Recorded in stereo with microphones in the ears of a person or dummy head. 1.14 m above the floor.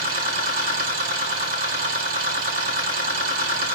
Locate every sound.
0.0 s a machine running: 60° right (ahead or behind), 1.9 m